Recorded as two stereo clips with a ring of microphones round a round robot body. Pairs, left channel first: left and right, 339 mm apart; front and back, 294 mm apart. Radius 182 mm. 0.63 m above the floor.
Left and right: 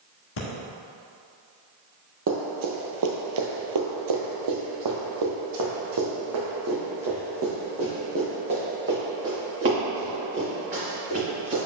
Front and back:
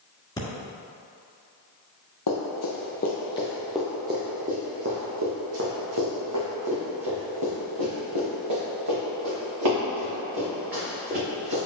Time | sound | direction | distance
0.4 | breathing | 75° left | 1.6 m
2.3 | running footsteps | 35° right | 1.2 m